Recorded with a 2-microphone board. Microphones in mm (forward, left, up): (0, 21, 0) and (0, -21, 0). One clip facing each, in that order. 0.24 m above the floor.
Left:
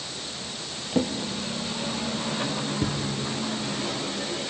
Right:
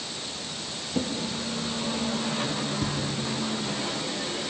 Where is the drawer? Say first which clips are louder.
Left 3 dB; 30° left (ahead or behind), 2.5 m.